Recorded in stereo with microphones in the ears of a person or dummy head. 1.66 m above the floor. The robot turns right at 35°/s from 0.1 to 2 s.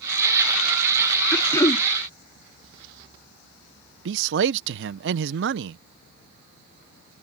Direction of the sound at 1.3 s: 10° left (ahead or behind).